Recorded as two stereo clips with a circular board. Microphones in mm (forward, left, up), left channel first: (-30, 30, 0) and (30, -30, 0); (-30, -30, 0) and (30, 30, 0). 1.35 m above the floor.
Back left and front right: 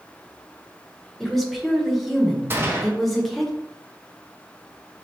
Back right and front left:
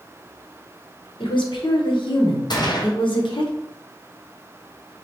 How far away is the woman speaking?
About 1.0 m.